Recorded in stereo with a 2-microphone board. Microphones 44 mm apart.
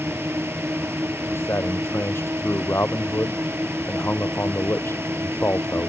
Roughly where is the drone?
Right.